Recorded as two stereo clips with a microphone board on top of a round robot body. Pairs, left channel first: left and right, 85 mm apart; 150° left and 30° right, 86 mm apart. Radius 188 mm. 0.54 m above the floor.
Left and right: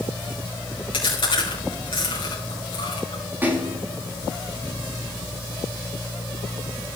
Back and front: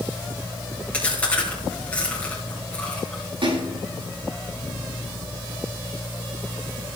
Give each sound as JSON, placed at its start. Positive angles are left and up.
{"t": 0.9, "sound": "chewing", "azimuth_deg": 75, "distance_m": 6.5}
{"t": 3.4, "sound": "a splash", "azimuth_deg": -25, "distance_m": 8.5}